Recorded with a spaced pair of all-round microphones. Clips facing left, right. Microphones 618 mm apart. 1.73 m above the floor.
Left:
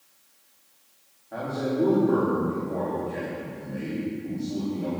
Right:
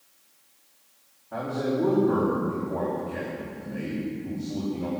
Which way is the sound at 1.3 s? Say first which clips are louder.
Right 1 dB; 30° right (ahead or behind).